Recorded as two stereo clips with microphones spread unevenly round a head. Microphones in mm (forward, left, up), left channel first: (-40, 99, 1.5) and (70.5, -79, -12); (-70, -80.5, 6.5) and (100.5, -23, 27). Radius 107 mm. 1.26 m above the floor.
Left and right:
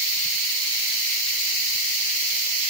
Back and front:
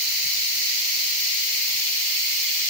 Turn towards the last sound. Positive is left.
No sound to turn to.